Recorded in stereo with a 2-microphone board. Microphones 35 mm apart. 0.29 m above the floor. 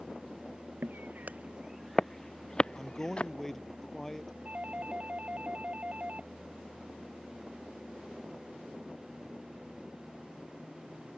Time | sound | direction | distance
0.8 | footsteps | 75° right (ahead or behind) | ?
2.7 | a man speaking | 15° left (ahead or behind) | ?
4.5 | a doorbell | 40° right (ahead or behind) | ?